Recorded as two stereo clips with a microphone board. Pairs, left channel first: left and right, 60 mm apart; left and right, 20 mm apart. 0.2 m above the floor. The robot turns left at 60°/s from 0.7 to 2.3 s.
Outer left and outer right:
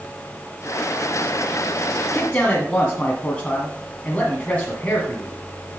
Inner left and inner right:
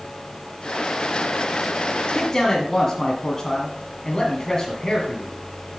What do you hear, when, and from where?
2.1 s a man speaking: 15° left (ahead or behind), 1.9 m; by 5.3 s 20° left (ahead or behind), 1.9 m